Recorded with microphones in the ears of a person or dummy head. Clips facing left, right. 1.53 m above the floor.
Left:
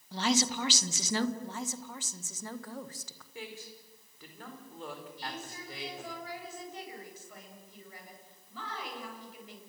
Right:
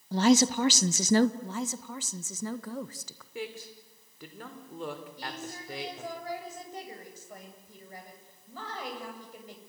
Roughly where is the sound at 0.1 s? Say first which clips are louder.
Right 8 dB; right.